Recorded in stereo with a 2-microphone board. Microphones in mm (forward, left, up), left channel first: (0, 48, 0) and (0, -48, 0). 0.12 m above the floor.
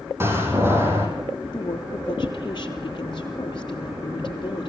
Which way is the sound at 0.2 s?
25° right (ahead or behind).